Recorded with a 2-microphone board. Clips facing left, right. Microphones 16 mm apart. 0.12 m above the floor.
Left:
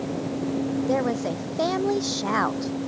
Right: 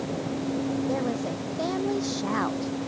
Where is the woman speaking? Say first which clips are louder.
Left 4 dB; 30° left (ahead or behind).